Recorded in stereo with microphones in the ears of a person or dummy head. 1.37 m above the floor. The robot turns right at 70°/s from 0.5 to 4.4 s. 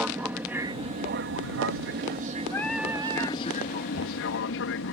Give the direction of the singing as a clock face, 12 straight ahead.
7 o'clock.